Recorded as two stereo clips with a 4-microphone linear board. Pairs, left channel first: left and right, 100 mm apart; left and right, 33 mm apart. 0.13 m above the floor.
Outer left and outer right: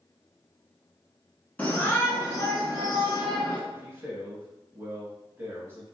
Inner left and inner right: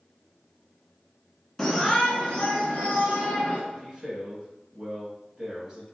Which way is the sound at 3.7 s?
25° right (ahead or behind).